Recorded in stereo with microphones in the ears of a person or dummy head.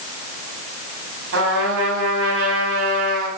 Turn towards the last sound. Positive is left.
turn(degrees=-75)  # may be behind; listen again after turning